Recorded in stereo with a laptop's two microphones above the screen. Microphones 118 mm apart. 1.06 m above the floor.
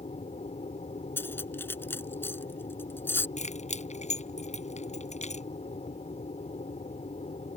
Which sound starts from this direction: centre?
Cutlery clinking, at 1.2 s.